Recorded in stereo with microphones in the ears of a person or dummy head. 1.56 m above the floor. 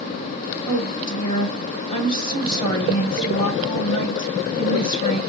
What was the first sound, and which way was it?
A woman speaking, 30° left (ahead or behind).